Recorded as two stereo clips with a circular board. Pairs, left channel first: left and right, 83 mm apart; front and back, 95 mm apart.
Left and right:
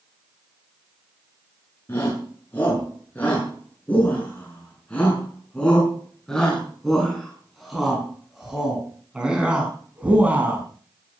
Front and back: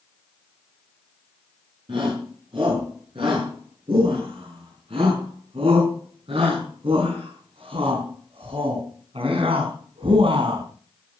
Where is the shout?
155° left, 7 m; by 10.7 s 160° right, 5 m.